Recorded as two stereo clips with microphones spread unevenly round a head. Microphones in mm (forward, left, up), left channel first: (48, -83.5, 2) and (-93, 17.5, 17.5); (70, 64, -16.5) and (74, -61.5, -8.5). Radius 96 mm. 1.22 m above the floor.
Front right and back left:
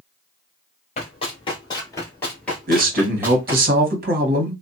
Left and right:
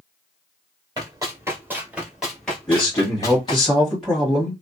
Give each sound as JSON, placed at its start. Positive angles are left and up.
{"t": 1.0, "sound": "running footsteps", "azimuth_deg": -70, "distance_m": 1.4}
{"t": 2.7, "sound": "a man speaking", "azimuth_deg": 180, "distance_m": 1.2}